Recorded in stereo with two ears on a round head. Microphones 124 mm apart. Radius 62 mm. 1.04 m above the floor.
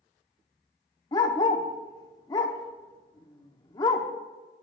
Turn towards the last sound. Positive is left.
turn(degrees=30)  # may be behind; listen again after turning